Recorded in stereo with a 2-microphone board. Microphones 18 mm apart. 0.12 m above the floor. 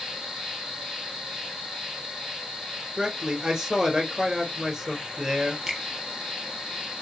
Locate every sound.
0.0 s an insect: 65° right (ahead or behind), 4 m
3.0 s a man speaking: 45° right (ahead or behind), 2.5 m
5.7 s a finger snap: 45° right (ahead or behind), 3 m